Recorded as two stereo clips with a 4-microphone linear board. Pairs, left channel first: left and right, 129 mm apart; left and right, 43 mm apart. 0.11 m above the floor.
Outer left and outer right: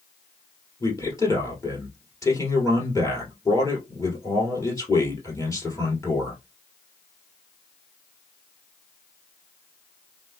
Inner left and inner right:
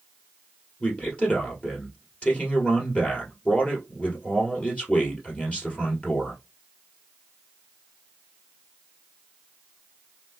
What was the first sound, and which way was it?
A man speaking, 25° left (ahead or behind).